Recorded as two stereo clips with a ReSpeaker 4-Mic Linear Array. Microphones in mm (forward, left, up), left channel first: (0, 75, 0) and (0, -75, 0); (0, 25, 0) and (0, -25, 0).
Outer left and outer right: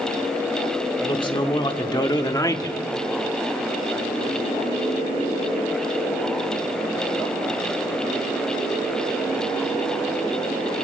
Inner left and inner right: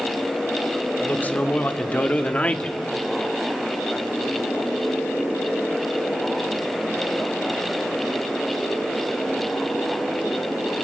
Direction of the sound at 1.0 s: 30° left (ahead or behind).